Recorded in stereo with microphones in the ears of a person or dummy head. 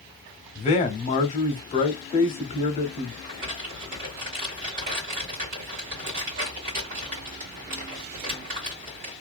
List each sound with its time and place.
0.6 s a man speaking: 35° left (ahead or behind), 0.7 m
3.2 s crumpling: 45° right (ahead or behind), 1.5 m